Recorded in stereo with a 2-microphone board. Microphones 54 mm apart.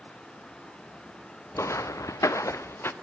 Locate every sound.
1.6 s footsteps: 60° left (ahead or behind), 0.7 m; by 2.9 s 50° left (ahead or behind), 0.8 m